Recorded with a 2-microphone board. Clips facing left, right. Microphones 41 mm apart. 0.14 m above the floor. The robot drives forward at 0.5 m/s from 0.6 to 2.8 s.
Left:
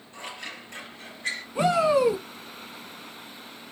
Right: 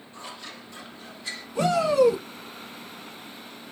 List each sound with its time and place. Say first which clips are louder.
0.1 s scissors: left 3 dB; 60° left (ahead or behind), 3.5 m
1.6 s a shout: right 1 dB; 25° left (ahead or behind), 1.5 m